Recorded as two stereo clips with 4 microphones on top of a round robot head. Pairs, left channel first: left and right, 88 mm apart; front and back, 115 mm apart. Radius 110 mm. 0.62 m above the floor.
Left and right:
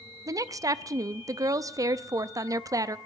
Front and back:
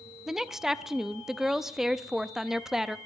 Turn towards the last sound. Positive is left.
turn(degrees=-95)